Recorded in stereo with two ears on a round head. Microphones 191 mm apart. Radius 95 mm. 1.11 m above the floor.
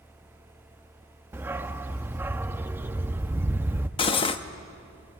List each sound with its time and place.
1.3 s a dog barking: 10° right (ahead or behind), 0.5 m
4.0 s cutlery clinking: 25° left (ahead or behind), 0.8 m